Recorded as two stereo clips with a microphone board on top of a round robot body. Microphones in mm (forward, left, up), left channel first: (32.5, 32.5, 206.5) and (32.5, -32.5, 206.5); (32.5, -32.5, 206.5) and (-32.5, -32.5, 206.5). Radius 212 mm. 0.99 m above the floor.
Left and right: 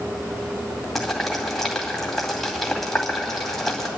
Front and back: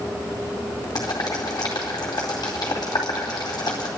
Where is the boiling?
5° left, 2 m.